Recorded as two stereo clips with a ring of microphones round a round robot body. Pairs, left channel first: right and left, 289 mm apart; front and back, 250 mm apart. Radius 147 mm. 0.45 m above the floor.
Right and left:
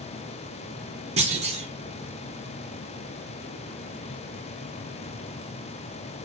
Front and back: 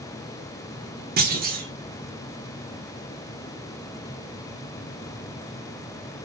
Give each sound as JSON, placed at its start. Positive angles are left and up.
{"t": 1.2, "sound": "a clunk", "azimuth_deg": 150, "distance_m": 0.6}